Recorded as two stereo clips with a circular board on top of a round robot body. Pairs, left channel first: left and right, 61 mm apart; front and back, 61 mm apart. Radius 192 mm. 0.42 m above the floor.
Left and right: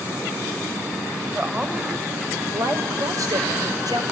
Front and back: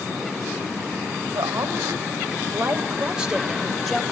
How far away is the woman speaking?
About 3.5 m.